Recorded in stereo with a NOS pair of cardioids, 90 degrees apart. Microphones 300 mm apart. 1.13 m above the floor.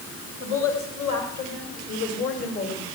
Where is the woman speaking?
45° left, 4 m; by 2.9 s 55° left, 5.5 m.